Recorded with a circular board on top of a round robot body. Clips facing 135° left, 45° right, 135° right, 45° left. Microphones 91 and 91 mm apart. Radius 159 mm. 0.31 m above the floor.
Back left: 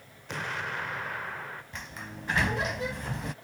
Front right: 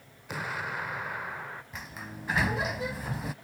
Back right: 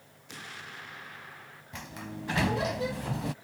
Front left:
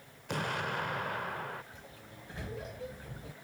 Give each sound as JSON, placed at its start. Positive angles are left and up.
{"t": 0.3, "sound": "an explosion", "azimuth_deg": 40}
{"t": 1.7, "sound": "a sliding door", "azimuth_deg": -130}